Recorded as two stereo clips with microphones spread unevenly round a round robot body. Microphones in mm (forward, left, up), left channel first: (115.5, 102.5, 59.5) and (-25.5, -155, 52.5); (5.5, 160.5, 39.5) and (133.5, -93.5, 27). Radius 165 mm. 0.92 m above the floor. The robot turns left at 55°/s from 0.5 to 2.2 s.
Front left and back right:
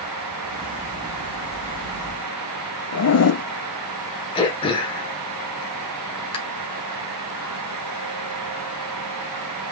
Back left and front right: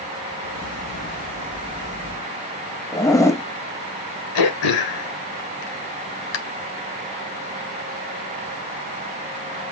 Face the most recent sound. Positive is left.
turn(degrees=135)